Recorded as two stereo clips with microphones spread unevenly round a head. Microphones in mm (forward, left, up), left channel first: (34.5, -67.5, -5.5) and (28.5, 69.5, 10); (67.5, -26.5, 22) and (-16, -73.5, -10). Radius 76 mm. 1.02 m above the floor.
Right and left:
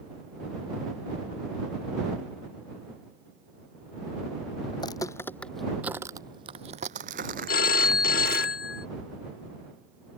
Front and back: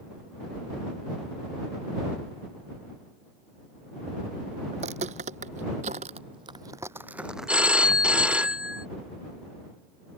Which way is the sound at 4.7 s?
150° right.